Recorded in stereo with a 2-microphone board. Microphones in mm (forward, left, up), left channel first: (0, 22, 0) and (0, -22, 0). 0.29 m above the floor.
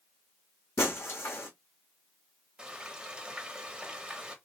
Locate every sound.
0.8 s breaking glass: 75° left (ahead or behind), 1.5 m
2.6 s frying: 15° right (ahead or behind), 0.8 m